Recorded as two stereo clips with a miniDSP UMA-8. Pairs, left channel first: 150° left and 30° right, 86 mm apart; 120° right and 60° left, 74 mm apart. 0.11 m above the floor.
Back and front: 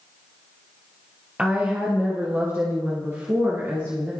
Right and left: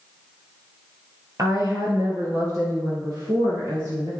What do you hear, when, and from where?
1.4 s a woman speaking: 40° left, 2 m; by 4.1 s 15° left, 4 m